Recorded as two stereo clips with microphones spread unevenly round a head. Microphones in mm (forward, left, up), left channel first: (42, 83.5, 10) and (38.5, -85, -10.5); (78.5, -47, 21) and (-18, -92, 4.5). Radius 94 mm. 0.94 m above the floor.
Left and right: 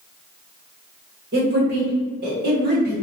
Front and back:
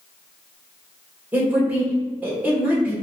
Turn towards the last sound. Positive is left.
turn(degrees=-85)